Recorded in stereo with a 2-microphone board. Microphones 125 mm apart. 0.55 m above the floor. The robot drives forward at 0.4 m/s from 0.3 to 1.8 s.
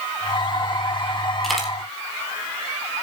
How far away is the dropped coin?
About 6 m.